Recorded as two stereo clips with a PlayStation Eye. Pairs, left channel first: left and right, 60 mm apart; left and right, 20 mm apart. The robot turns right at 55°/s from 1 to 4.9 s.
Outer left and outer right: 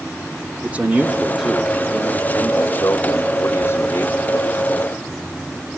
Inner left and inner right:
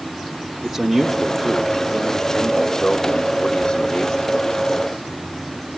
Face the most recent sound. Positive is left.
turn(degrees=170)